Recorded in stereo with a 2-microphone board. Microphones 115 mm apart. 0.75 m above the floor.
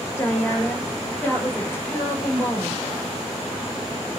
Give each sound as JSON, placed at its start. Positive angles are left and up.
{"t": 0.2, "sound": "a woman speaking", "side_deg": 15, "distance_m": 3.5}